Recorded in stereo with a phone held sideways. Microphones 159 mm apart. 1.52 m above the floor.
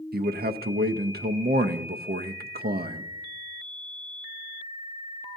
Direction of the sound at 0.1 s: 80° right.